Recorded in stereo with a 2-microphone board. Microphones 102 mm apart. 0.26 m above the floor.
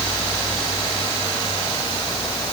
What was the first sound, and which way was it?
Only background noise.